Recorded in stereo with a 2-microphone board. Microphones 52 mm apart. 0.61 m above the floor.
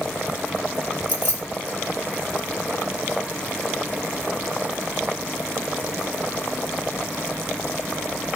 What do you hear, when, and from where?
1.1 s keys jangling: 45° left (ahead or behind), 1.8 m